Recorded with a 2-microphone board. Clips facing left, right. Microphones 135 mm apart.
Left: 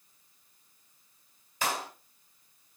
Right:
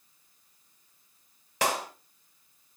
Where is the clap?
80° right, 1.9 m.